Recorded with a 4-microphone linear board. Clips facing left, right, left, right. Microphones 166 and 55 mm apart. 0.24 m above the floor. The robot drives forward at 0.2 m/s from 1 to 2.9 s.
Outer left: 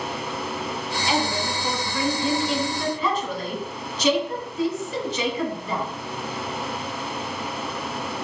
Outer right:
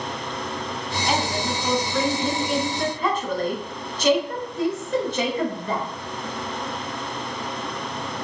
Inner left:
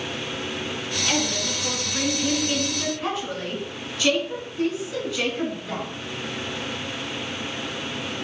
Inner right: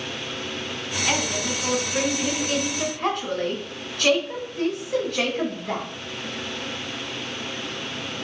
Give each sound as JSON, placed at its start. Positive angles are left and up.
{"t": 1.1, "sound": "a woman speaking", "side_deg": -50, "distance_m": 2.0}